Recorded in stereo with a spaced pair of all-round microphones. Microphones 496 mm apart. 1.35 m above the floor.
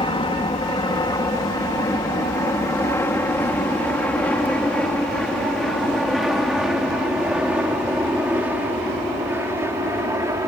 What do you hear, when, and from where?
0.0 s an aircraft: 10° left (ahead or behind); by 10.5 s 5° right (ahead or behind)